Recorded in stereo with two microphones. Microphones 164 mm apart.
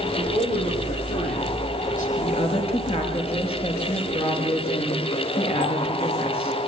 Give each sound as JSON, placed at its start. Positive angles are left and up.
{"t": 0.1, "sound": "a man speaking", "side_deg": 45, "distance_m": 10.0}
{"t": 2.2, "sound": "a woman speaking", "side_deg": 35, "distance_m": 5.5}